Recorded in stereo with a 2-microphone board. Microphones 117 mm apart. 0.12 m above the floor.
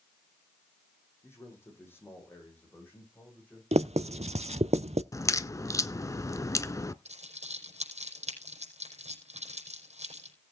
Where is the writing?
70° right (ahead or behind), 0.6 m.